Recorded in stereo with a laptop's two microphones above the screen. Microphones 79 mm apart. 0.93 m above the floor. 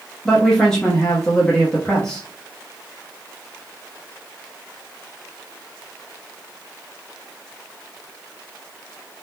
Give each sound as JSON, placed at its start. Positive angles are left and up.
{"t": 0.2, "sound": "a man speaking", "side_deg": 10, "distance_m": 0.7}